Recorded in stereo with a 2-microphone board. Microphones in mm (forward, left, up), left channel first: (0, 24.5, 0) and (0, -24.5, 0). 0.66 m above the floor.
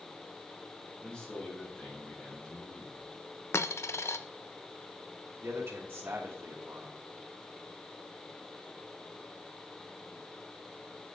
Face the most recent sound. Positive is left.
turn(degrees=-55)  # may be behind; listen again after turning